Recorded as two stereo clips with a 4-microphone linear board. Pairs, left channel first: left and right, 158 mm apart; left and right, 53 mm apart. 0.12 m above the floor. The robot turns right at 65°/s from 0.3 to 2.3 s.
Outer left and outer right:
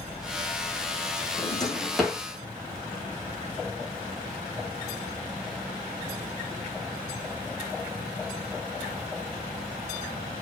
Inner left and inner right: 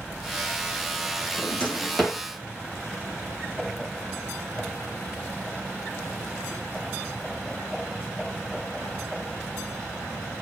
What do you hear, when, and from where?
1.4 s a drawer: 40° left (ahead or behind), 2 m; by 2.2 s 15° right (ahead or behind), 2 m